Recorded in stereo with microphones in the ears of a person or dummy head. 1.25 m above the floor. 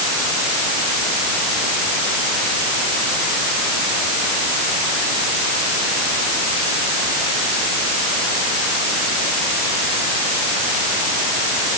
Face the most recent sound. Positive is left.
No sound to turn to.